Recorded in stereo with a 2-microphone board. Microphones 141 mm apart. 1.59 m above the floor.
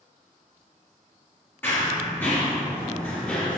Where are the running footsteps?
15° left (ahead or behind), 1.8 m; by 3.6 s 10° left (ahead or behind), 1.5 m.